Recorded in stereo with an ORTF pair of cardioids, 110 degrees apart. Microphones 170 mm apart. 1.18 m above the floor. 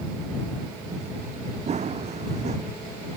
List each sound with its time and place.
1.7 s running footsteps: 40° right